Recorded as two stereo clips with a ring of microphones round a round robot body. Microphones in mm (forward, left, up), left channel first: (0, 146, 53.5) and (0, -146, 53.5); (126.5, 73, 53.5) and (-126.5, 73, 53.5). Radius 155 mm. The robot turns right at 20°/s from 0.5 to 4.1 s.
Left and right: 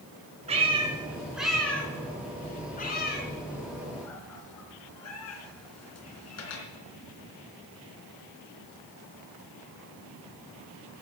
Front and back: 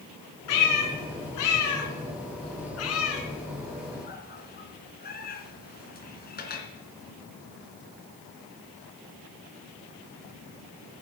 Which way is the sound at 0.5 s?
20° right.